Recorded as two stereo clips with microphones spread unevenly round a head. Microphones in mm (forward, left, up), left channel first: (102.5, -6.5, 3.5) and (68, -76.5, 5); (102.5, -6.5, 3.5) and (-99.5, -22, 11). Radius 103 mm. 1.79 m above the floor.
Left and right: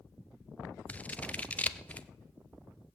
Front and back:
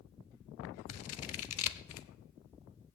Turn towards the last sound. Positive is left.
turn(degrees=-10)